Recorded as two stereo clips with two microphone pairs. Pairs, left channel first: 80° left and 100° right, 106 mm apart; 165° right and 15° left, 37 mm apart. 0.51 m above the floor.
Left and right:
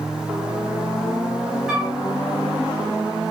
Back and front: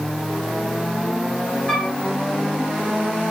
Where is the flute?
Straight behind, 0.9 m.